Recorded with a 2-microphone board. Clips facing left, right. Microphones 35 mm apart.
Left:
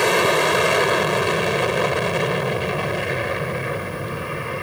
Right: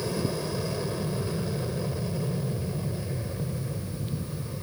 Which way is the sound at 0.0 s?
75° left (ahead or behind).